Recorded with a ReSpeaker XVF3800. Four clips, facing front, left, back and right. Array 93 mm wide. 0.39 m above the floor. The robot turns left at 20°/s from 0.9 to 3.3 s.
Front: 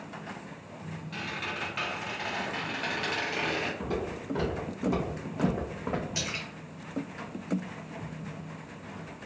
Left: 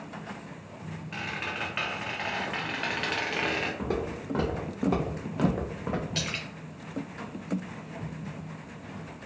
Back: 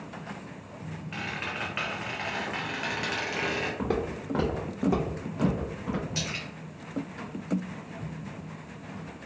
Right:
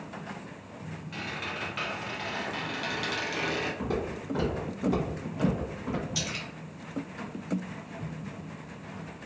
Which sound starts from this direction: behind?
Footsteps, at 3.8 s.